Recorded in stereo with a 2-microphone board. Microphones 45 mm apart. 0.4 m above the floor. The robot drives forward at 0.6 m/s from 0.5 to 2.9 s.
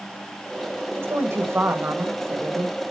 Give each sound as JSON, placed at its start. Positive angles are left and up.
{"t": 1.0, "sound": "a woman speaking", "side_deg": -55, "distance_m": 1.7}